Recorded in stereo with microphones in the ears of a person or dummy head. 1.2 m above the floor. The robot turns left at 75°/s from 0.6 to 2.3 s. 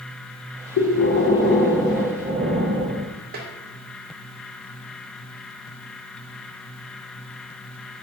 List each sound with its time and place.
0.8 s breathing: 80° left, 0.6 m; by 3.1 s 35° right, 0.6 m
3.3 s tapping: 40° right (ahead or behind), 0.5 m